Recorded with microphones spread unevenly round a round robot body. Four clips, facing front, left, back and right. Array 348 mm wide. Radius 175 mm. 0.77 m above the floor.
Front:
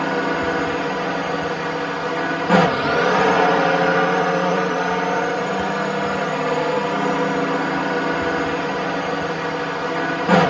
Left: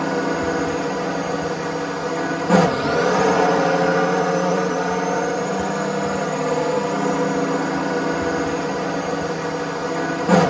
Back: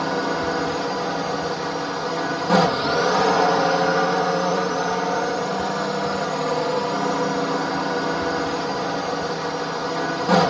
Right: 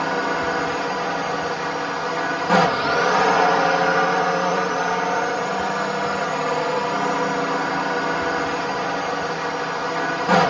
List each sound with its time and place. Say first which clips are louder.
0.0 s a drone: left 1 dB, front 2 dB; 60° left